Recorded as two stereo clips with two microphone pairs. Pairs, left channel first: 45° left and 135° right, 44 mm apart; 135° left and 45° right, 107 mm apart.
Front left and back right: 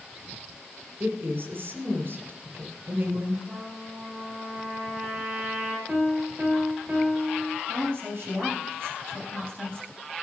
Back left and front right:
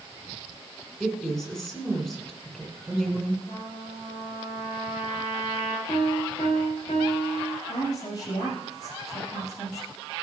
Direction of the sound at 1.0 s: 140° right.